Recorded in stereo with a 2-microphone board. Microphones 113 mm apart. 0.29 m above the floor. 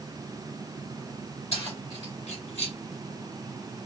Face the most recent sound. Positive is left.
turn(degrees=70)  # may be behind; listen again after turning